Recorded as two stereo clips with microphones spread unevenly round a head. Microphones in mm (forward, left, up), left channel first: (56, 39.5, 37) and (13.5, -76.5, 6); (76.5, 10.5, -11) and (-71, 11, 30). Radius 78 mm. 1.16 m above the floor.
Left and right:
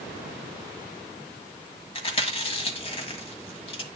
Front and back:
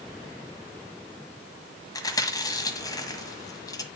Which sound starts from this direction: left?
Chewing, at 1.9 s.